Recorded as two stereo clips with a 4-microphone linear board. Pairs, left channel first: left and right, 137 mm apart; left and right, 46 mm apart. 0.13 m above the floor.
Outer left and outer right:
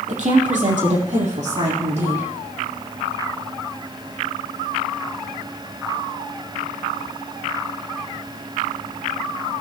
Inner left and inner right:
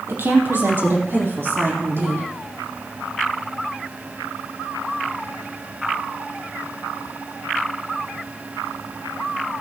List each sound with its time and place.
0.1 s a woman speaking: 60° right (ahead or behind), 5 m; by 2.3 s 55° right (ahead or behind), 7.5 m